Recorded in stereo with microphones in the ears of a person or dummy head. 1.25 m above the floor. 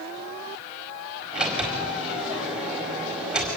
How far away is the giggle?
No giggle in this recording.